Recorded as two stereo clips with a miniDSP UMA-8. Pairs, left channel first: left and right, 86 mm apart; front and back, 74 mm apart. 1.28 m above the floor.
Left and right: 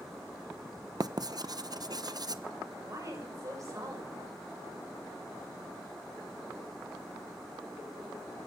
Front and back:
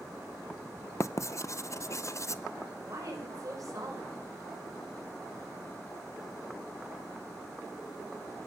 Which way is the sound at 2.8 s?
140° right.